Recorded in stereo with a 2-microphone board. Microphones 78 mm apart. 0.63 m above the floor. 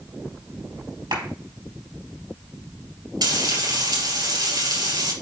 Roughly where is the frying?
Right.